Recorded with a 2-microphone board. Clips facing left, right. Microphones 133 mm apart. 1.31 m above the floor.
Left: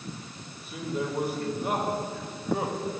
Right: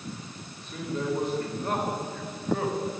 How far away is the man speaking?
About 5 m.